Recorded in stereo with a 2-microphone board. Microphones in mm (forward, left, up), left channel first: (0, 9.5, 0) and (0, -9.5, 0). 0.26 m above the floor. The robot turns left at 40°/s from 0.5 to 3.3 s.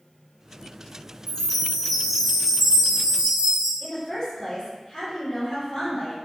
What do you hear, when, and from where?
1.3 s a chime: 30° left, 1.1 m; by 3.7 s 50° right, 1.1 m
3.8 s a woman speaking: 35° left (ahead or behind), 1.2 m